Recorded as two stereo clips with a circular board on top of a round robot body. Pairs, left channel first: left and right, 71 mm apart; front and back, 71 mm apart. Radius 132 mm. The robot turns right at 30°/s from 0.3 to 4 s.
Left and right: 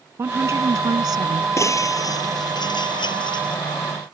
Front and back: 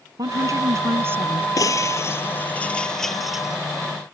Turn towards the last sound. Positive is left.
turn(degrees=115)